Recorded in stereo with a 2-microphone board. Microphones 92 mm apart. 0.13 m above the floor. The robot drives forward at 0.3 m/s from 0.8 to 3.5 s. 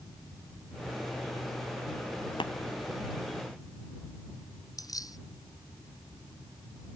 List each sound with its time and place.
2.4 s tapping: 65° left (ahead or behind)
4.8 s keys jangling: 40° left (ahead or behind)